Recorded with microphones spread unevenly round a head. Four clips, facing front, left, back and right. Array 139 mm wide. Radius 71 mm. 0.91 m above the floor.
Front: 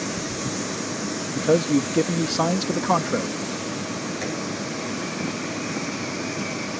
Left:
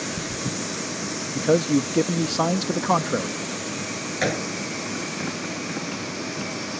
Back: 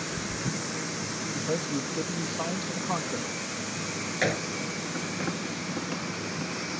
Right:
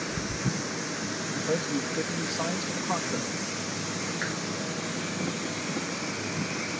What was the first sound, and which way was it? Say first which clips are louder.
A man speaking: left 10 dB, front 12 dB; 40° left.